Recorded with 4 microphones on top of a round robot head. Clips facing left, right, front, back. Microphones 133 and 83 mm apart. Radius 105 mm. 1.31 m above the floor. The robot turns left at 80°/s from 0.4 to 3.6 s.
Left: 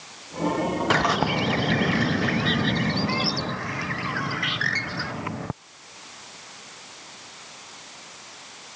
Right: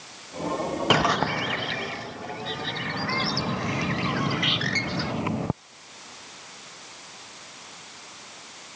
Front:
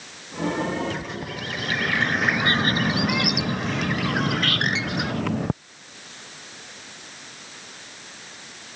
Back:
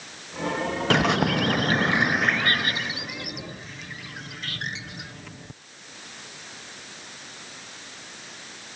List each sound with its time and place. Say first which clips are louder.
0.9 s a bird: right 2 dB, back 10 dB; 165° right; by 5.5 s 20° right